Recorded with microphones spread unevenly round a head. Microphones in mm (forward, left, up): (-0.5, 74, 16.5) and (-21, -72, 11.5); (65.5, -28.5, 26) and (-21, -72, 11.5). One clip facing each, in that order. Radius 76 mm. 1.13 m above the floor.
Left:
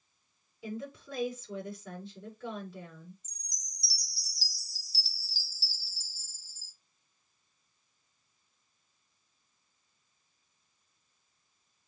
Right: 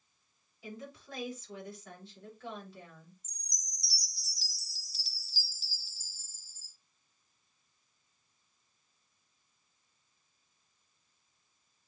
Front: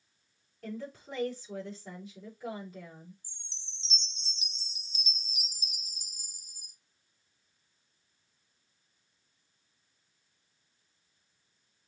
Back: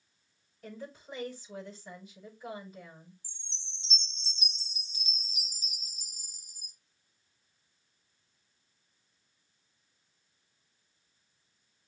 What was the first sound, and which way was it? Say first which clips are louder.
A woman speaking: left 6 dB, front 4 dB; 80° left.